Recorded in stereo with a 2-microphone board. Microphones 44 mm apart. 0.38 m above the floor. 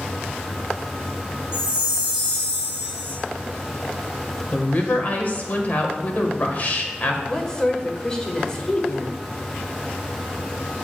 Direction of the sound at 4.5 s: 40° left (ahead or behind).